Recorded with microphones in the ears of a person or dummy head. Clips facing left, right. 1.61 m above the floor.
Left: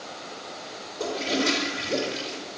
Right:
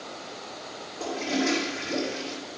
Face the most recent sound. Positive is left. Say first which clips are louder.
# left 1 dB
turn(degrees=45)  # may be behind; listen again after turning